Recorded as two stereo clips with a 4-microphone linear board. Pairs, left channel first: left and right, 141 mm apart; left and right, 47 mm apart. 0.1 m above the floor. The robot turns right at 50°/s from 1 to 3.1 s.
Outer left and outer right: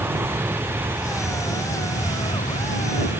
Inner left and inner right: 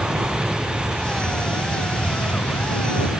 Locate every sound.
0.0 s an aircraft: 15° right; by 3.2 s 90° left